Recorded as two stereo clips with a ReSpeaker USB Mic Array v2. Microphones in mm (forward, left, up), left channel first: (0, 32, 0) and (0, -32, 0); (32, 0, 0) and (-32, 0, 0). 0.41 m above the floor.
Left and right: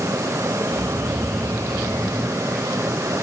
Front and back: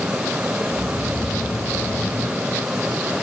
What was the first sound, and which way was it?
Snoring, 25° right.